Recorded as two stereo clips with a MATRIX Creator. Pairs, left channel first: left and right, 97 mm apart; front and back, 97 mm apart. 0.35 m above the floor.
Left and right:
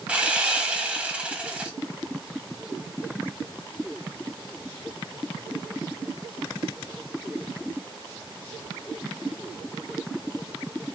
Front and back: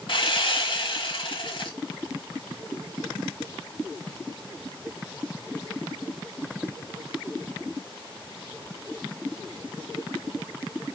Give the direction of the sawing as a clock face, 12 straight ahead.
12 o'clock.